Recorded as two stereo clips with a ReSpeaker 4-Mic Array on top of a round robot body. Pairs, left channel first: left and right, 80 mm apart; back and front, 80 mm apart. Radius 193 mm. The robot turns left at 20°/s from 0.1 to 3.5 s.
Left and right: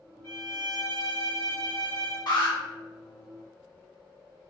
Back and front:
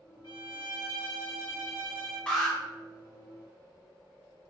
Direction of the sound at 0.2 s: 155° left.